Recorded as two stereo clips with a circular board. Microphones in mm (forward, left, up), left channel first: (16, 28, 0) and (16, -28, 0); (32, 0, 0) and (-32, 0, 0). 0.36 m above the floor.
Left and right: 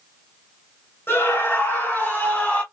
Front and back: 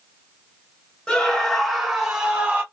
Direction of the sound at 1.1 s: 75° left.